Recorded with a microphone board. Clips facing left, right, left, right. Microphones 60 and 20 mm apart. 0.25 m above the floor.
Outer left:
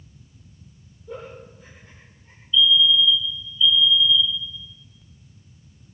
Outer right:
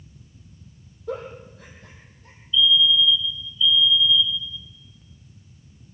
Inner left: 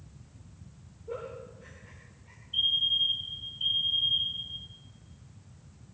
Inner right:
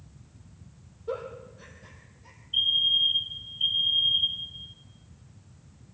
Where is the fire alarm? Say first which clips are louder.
Outer left 1 dB, inner right 3 dB; 20° right (ahead or behind), 2 m.